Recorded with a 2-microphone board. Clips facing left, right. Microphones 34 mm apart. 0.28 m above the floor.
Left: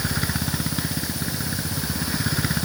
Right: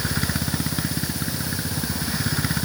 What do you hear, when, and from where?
Only background noise.